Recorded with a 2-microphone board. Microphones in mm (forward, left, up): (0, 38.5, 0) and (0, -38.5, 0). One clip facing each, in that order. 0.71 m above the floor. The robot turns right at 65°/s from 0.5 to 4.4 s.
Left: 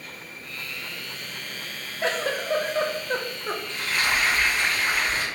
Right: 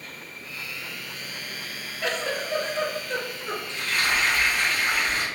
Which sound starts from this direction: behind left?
Frying, at 3.7 s.